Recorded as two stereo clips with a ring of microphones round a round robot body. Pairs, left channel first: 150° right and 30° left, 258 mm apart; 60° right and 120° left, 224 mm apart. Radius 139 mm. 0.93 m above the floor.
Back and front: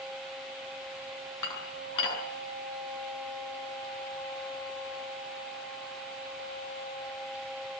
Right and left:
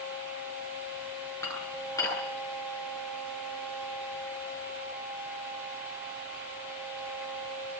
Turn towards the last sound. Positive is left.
turn(degrees=-140)